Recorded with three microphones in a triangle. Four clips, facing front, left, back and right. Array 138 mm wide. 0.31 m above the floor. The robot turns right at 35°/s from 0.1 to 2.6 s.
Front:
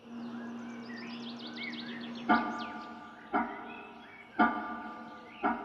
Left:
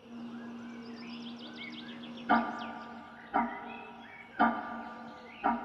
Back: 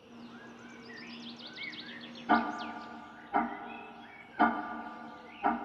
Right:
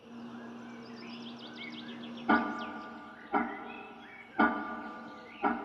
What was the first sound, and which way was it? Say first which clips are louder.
Ticking: even, even; 55° right.